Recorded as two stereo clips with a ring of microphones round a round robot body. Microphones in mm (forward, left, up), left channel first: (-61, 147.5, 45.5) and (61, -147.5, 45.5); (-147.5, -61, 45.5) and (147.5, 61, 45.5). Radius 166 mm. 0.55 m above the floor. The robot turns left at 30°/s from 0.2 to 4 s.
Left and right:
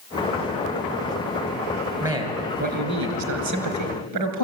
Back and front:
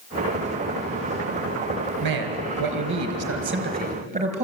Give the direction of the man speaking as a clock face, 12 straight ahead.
12 o'clock.